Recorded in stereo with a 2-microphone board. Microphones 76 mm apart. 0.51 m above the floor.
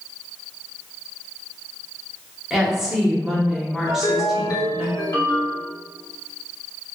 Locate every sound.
2.5 s a woman speaking: 5° right (ahead or behind), 0.7 m
3.9 s a ringtone: 55° left (ahead or behind), 0.9 m